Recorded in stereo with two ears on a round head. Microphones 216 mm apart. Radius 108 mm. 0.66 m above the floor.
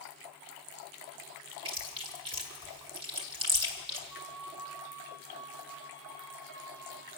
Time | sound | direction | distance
1.6 | chewing | 25° right (ahead or behind) | 2 m
4.1 | a flute | 85° right | 4.5 m